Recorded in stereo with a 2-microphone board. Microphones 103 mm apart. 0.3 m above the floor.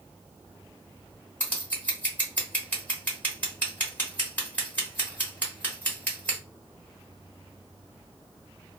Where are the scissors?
15° left (ahead or behind), 1.7 m.